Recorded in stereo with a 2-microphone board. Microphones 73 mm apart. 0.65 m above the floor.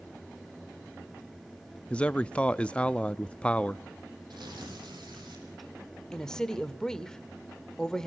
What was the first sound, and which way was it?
A man speaking, 15° left (ahead or behind).